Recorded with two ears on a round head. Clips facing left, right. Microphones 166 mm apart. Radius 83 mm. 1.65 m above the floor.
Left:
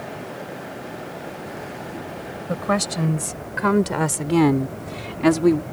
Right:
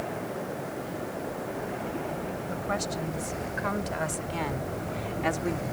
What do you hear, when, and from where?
2.5 s a woman speaking: 85° left; by 5.6 s 75° left (ahead or behind)